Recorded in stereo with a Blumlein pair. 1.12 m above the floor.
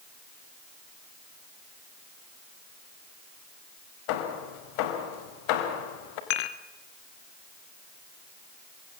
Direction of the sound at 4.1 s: 45° left.